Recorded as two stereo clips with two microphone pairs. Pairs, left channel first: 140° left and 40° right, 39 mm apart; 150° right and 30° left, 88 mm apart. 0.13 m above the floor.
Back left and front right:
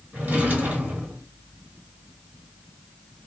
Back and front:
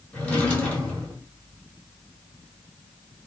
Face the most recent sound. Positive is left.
turn(degrees=-70)